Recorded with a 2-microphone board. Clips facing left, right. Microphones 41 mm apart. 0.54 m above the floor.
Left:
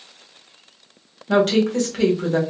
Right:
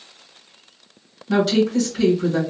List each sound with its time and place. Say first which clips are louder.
1.3 s a woman speaking: left 1 dB; 50° left (ahead or behind), 1.5 m